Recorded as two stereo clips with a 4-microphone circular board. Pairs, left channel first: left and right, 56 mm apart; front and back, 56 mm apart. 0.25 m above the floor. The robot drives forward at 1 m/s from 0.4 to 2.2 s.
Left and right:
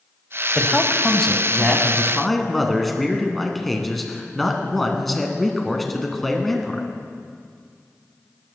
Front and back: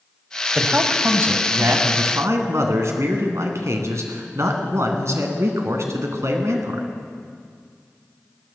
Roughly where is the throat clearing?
I don't hear throat clearing.